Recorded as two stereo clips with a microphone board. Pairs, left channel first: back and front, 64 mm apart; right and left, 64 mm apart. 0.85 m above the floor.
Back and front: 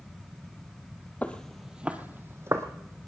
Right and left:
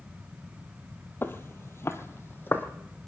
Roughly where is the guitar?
I don't hear a guitar.